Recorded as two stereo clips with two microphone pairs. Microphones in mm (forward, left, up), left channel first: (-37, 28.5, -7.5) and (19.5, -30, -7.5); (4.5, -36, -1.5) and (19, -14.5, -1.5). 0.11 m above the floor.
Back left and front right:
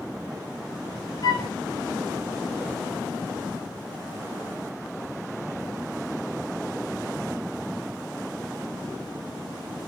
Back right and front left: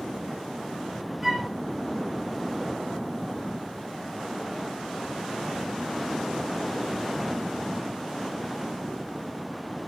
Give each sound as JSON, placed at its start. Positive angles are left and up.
{"t": 1.2, "sound": "a flute", "azimuth_deg": 130, "distance_m": 1.2}